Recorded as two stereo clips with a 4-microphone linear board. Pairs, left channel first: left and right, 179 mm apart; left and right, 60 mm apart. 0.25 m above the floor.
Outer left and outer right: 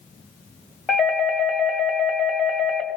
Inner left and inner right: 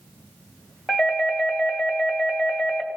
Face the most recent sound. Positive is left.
turn(degrees=0)  # may be behind; listen again after turning